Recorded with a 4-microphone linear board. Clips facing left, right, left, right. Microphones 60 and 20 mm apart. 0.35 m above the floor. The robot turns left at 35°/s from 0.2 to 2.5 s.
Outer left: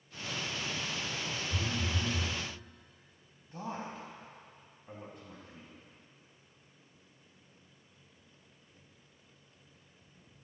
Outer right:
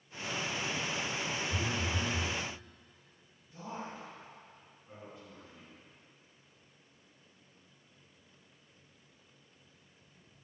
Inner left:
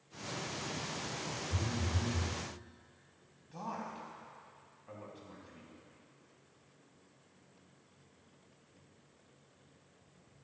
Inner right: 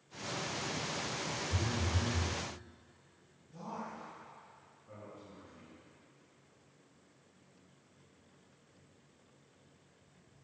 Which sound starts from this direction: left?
A man speaking, at 3.5 s.